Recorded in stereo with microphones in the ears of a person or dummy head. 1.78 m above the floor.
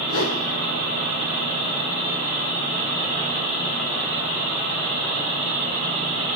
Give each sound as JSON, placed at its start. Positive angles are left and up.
{"t": 0.1, "sound": "a whoosh", "side_deg": 80, "distance_m": 3.5}